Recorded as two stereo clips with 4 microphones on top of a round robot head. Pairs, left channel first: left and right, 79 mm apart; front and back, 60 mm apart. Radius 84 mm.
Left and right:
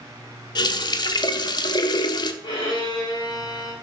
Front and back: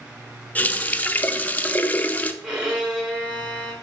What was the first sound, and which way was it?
A running tap, 65° left.